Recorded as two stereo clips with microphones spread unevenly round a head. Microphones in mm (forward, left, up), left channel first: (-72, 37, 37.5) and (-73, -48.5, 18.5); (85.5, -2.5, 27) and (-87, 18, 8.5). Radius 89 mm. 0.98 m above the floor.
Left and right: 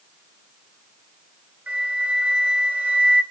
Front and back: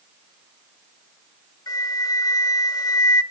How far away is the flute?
About 0.7 m.